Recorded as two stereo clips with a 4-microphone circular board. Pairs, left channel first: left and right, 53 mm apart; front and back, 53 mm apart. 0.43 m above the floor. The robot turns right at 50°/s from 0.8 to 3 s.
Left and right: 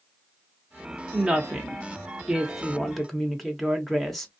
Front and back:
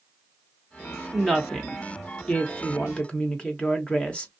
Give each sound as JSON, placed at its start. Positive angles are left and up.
{"t": 1.1, "sound": "a woman speaking", "azimuth_deg": -85, "distance_m": 0.7}